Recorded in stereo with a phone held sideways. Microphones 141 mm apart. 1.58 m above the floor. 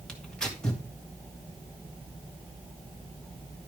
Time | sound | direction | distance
0.1 | tearing paper | 5° left (ahead or behind) | 2.5 m